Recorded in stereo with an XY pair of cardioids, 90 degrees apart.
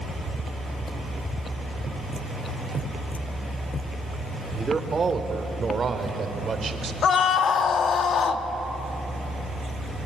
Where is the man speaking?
30° right, 3 m; by 6.9 s 45° right, 4 m.